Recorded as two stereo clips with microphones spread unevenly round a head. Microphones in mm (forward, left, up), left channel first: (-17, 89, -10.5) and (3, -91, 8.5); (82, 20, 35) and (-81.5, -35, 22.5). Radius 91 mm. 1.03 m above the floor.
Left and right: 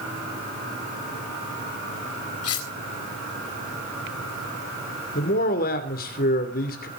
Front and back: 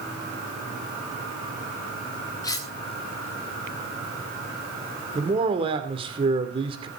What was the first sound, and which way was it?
Cutlery clinking, 90° left.